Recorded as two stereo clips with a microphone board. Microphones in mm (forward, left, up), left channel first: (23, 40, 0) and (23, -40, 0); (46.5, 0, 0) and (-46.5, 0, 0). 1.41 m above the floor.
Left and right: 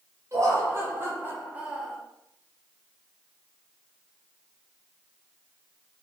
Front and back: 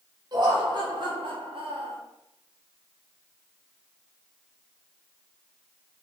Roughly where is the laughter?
Behind right.